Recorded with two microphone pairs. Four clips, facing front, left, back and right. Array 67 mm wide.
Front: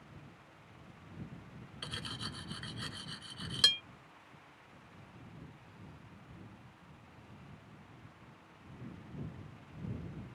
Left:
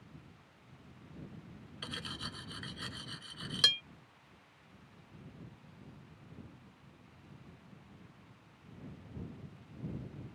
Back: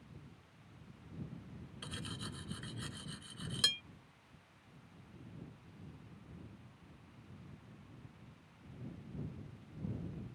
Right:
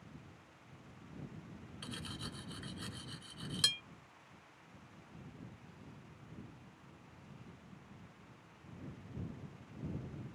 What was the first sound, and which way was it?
Cutlery clinking, 55° left.